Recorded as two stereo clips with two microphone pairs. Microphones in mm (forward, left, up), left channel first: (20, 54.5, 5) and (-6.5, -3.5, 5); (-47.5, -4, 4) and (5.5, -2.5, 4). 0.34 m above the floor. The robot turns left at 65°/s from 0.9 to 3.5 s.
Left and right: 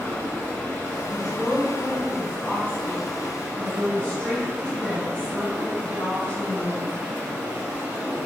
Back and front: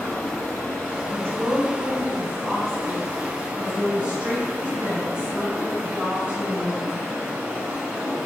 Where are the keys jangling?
I don't hear keys jangling.